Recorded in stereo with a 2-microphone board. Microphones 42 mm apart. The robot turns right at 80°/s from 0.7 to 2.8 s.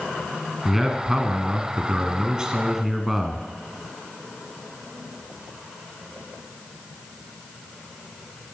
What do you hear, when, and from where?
0.7 s a man speaking: centre (ahead or behind), 1.2 m; by 3.5 s 5° right (ahead or behind), 1.2 m